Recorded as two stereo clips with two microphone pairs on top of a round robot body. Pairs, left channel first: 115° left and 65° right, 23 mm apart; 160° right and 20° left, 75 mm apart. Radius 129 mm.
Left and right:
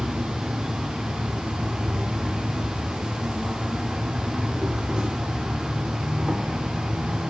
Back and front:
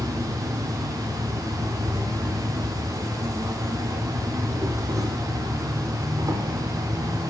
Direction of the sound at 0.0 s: 20° right.